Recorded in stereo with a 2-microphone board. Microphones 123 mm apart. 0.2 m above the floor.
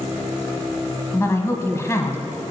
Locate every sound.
1.1 s a woman speaking: 25° left (ahead or behind), 1.0 m